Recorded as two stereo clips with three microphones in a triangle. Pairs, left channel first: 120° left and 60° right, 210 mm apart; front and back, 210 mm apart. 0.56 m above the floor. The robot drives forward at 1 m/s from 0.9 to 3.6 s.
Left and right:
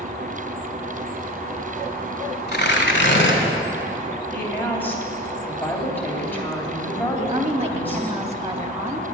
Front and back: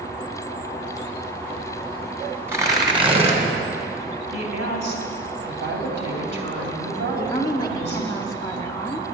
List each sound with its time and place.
2.5 s tearing paper: 105° left, 2 m; by 3.4 s 125° left, 2.5 m
4.3 s a woman speaking: 160° right, 3 m
7.2 s a woman speaking: 55° right, 1.4 m